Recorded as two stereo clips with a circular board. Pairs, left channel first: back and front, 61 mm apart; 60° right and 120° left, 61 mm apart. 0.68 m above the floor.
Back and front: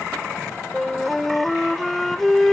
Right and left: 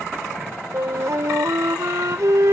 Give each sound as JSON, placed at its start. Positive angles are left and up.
{"t": 0.7, "sound": "a flute", "azimuth_deg": 90}